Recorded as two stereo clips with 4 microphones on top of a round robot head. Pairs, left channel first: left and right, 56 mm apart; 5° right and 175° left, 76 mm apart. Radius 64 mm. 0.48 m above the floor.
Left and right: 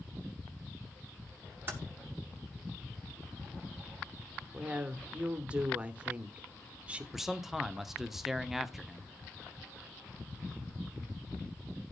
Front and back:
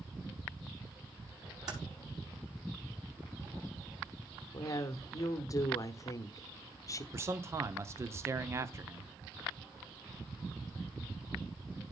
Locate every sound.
1.7 s typing on a keyboard: 145° right, 5 m
4.5 s a woman speaking: 25° right, 1.1 m
7.1 s a man speaking: 170° right, 0.9 m